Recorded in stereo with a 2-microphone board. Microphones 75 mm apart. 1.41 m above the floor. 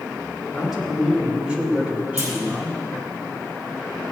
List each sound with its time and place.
0.5 s a man speaking: 5° right (ahead or behind), 3 m; by 2.8 s 30° right (ahead or behind), 2.5 m
2.2 s a clunk: 45° right (ahead or behind), 3.5 m